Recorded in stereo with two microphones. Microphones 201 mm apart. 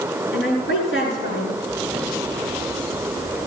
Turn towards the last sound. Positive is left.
turn(degrees=80)